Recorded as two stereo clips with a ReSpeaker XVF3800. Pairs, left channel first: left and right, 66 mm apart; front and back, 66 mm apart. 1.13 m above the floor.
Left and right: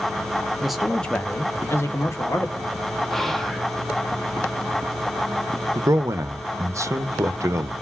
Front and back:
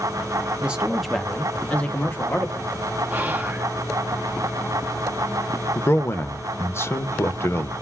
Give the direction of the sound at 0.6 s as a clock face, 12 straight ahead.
5 o'clock.